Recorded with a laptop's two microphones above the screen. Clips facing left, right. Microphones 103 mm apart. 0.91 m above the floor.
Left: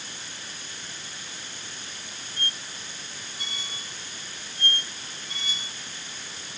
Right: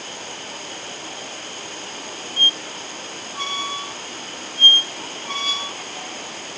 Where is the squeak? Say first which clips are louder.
Right 6 dB; 85° right.